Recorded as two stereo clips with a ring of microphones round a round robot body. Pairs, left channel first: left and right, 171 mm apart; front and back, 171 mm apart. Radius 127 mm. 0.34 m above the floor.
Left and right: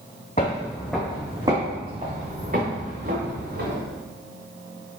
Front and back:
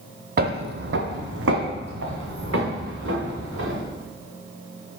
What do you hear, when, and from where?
0.4 s footsteps: 155° left, 0.7 m; by 3.8 s 145° right, 2.5 m